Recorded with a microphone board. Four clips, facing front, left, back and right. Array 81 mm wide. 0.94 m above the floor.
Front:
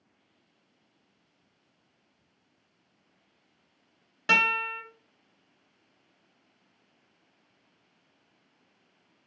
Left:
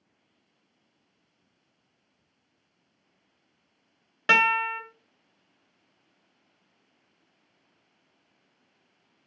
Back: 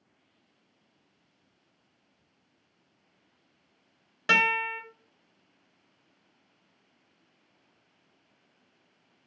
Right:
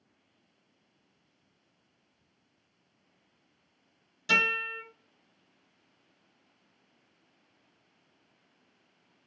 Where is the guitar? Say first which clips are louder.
Left 8 dB, back 1 dB; 90° left, 0.5 m.